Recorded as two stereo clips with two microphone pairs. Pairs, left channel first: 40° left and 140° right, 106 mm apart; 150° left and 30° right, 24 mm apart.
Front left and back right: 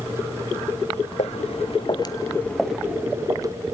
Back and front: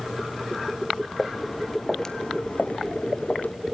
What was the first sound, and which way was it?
Footsteps, 60° left.